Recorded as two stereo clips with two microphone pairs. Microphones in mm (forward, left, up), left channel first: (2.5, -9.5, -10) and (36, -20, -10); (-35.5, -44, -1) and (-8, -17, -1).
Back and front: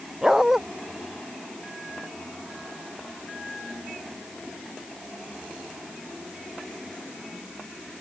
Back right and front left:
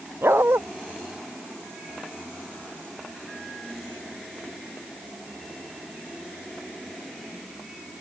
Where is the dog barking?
60° left.